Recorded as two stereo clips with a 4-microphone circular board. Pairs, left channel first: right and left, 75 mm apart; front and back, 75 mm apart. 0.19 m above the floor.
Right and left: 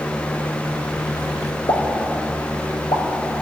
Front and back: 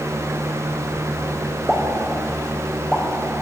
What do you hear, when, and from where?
1.7 s a pop: 95° right, 4 m